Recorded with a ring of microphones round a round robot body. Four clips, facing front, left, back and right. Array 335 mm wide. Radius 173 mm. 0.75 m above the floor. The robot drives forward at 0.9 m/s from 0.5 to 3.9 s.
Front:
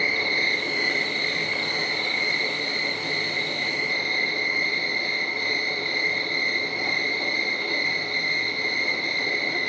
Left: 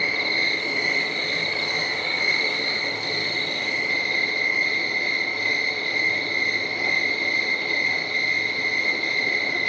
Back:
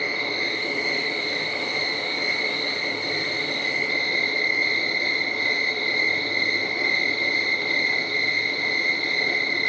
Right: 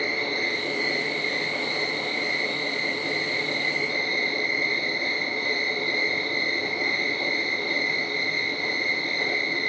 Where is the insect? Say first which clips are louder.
Left 1 dB, front 1 dB; 50° left, 3 m; by 9.7 s 120° left, 2.5 m.